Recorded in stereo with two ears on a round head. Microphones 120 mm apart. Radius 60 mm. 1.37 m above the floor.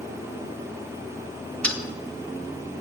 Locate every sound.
1.6 s a dropped coin: 10° left (ahead or behind), 0.7 m